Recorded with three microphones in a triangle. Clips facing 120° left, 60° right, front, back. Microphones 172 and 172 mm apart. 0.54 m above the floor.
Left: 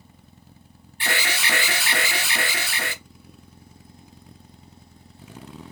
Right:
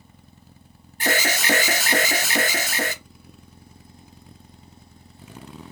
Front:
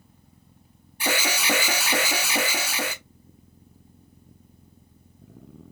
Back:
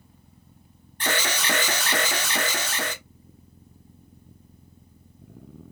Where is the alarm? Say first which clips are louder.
Right 5 dB, front 1 dB; 75° right, 0.7 m.